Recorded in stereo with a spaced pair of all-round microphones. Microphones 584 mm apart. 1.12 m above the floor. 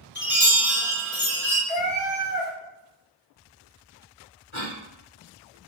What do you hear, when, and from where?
0.1 s a chime: 15° left (ahead or behind), 1.0 m
1.7 s a cat meowing: 15° left (ahead or behind), 0.6 m
4.5 s a cough: 50° left (ahead or behind), 1.6 m